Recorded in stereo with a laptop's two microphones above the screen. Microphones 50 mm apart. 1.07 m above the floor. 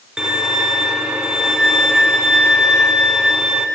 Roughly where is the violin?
Centre.